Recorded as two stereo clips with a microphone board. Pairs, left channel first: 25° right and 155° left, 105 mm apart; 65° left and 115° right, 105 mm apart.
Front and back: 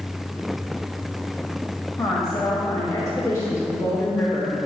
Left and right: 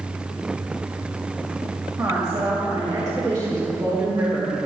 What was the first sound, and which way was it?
A woman speaking, 70° right.